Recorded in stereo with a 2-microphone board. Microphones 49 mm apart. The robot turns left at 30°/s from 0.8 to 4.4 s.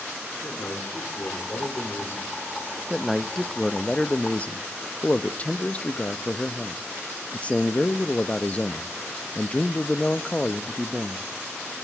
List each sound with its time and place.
0.4 s a man speaking: 90° left, 3 m; by 2.8 s 30° left, 3 m
2.9 s a man speaking: 170° right, 0.6 m; by 11.3 s 145° left, 0.6 m